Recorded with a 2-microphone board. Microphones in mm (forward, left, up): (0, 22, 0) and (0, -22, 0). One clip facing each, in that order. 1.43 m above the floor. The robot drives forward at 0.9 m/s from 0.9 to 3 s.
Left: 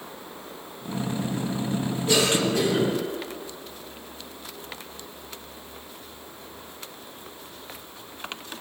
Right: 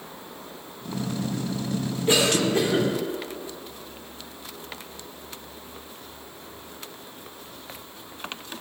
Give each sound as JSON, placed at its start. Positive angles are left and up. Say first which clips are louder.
{"t": 2.1, "sound": "a cough", "louder": "right 1 dB", "side_deg": -30, "distance_m": 4.0}